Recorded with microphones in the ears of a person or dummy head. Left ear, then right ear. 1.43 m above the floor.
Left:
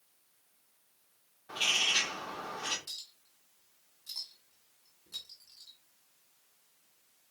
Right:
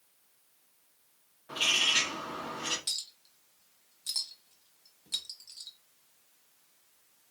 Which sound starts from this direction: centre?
A bird, at 1.5 s.